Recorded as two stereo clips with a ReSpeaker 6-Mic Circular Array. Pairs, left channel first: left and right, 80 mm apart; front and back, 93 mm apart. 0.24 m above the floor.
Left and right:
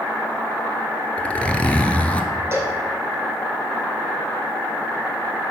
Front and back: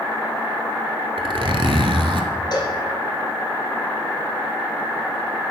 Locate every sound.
1.2 s a zipper: 165° left, 0.7 m
2.5 s a cowbell: 35° right, 1.6 m